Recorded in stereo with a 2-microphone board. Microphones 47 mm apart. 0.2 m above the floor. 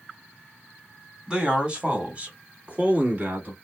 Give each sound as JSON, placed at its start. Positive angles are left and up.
{"t": 1.3, "sound": "a man speaking", "side_deg": -20, "distance_m": 1.6}